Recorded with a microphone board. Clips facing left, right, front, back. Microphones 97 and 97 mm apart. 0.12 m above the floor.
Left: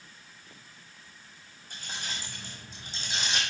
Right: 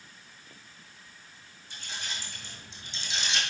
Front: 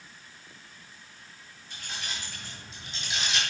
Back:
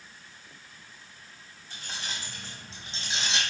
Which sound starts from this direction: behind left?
Keys jangling, at 1.7 s.